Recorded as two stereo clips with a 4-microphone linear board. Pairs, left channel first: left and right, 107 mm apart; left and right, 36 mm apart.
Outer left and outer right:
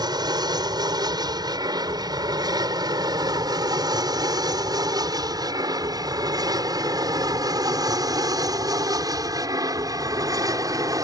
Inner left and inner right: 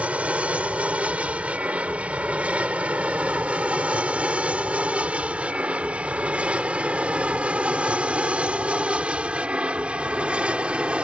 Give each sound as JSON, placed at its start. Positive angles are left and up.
{"t": 0.0, "sound": "an aircraft", "side_deg": -40}